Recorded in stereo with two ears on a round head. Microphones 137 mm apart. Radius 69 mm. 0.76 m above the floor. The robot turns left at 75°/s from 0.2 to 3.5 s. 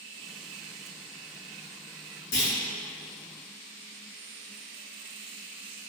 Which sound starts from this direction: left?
A clunk, at 2.3 s.